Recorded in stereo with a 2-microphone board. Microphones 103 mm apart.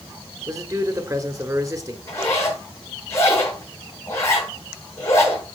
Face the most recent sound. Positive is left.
turn(degrees=25)  # may be behind; listen again after turning